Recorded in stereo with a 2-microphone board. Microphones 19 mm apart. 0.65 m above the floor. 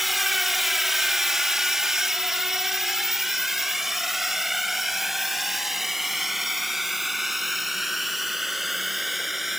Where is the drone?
10° right (ahead or behind); by 9.6 s 15° right (ahead or behind).